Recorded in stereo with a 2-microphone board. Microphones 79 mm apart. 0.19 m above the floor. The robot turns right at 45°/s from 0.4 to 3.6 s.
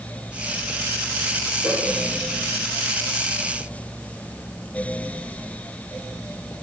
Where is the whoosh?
45° left (ahead or behind), 3 m; by 1.8 s 50° left (ahead or behind), 3 m.